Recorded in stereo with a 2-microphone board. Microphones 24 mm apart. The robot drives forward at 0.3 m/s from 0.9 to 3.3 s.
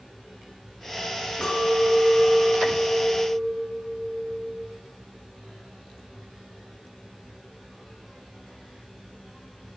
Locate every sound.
1.4 s a clink: 55° left (ahead or behind), 1.8 m; by 4.6 s 40° left (ahead or behind), 2 m